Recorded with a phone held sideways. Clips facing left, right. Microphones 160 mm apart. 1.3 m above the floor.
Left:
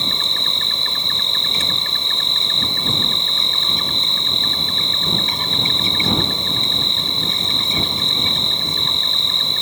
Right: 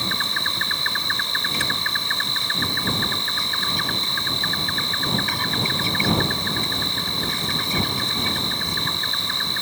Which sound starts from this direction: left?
An insect, at 0.0 s.